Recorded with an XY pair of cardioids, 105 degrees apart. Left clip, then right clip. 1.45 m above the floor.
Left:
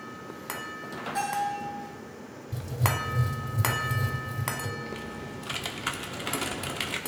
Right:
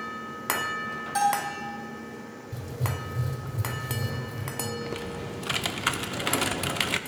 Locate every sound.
1.1 s a bell: 70° right, 5 m
2.5 s writing: 20° left, 3.5 m
4.8 s typing on a keyboard: 35° right, 0.6 m